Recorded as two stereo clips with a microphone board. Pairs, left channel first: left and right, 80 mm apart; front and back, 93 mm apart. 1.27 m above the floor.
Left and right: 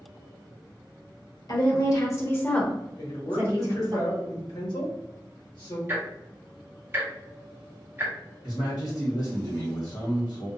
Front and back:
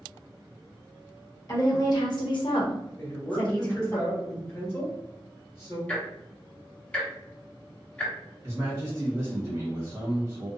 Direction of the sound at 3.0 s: 65° left.